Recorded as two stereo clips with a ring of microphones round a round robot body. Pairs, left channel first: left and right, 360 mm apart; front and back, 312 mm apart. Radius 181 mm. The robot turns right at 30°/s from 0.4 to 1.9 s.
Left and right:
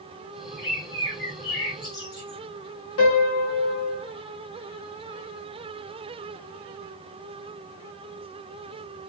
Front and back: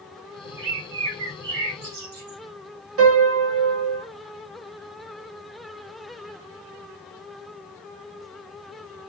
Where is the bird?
130° left, 2 m; by 2.4 s 170° left, 2 m.